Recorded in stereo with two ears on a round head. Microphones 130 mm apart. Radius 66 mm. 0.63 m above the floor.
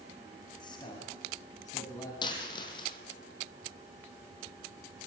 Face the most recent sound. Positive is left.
turn(degrees=30)  # may be behind; listen again after turning